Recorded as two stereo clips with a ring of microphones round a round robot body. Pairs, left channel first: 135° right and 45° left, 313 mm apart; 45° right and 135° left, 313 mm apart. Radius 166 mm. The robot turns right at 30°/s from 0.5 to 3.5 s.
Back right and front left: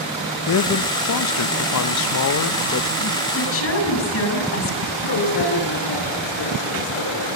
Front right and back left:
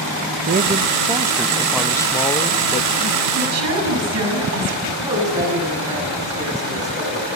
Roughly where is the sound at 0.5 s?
Behind.